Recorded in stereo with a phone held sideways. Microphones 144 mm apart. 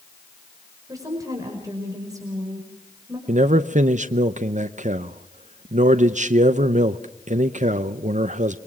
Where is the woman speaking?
25° right (ahead or behind), 5 m.